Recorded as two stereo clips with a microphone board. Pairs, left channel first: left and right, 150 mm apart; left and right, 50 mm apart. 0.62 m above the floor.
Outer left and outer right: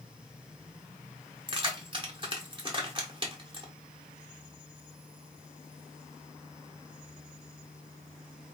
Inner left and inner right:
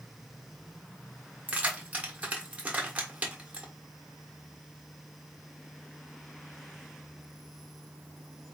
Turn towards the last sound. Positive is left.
turn(degrees=-35)  # may be behind; listen again after turning